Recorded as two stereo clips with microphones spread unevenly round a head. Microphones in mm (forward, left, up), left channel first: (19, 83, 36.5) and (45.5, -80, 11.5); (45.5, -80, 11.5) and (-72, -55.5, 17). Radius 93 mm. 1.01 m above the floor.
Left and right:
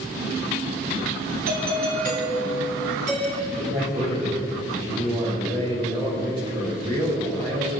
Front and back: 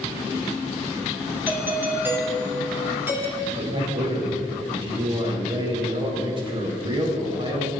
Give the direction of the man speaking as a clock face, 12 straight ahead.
5 o'clock.